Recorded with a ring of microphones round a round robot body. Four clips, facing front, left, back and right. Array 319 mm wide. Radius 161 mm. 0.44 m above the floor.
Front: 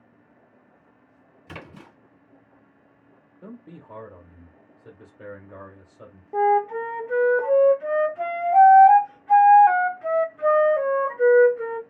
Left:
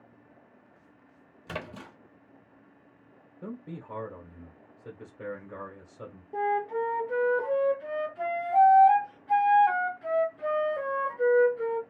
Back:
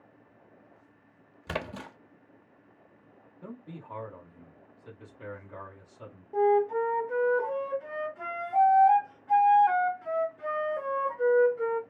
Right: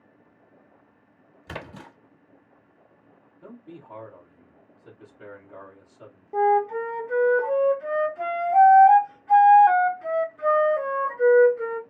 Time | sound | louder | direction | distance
1.5 | a splash | even, back 6 dB | straight behind | 0.8 m
3.4 | a man speaking | left 3 dB, front 2 dB | 50° left | 1.5 m
6.3 | a flute | right 7 dB, front 3 dB | 15° right | 0.6 m